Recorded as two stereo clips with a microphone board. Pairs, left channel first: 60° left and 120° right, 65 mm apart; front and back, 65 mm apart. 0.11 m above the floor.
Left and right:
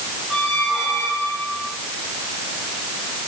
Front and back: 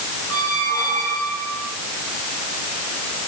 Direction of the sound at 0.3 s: 40° right.